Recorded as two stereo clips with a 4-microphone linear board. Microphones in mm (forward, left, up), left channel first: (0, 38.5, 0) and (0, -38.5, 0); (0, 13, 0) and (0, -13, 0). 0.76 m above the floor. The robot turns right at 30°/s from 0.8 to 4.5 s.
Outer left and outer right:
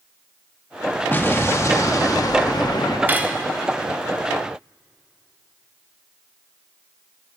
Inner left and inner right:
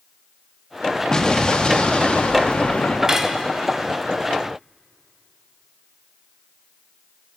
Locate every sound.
1.1 s an explosion: 30° left, 0.8 m; by 3.0 s 85° left, 0.8 m
3.1 s cutlery clinking: 25° right (ahead or behind), 0.6 m; by 3.4 s 15° right (ahead or behind), 0.6 m